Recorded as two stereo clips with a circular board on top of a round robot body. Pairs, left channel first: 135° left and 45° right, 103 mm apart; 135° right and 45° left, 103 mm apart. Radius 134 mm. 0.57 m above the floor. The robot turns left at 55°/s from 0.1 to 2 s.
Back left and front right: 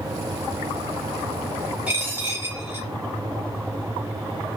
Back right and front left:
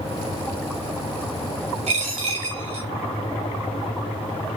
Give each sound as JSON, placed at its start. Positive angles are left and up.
{"t": 1.9, "sound": "a dropped coin", "azimuth_deg": 35, "distance_m": 0.8}